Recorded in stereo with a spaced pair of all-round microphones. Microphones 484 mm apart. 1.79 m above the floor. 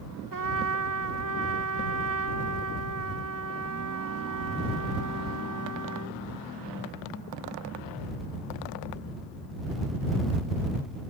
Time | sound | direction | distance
0.3 | a trumpet | 45° right (ahead or behind) | ?